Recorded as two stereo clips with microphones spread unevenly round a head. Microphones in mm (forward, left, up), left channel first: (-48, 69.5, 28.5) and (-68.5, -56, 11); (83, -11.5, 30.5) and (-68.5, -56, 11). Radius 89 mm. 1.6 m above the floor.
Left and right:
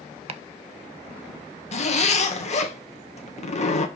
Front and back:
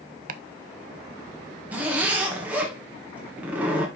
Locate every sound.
0.3 s chopping: 135° right, 0.6 m
1.7 s a zipper: 115° left, 1.3 m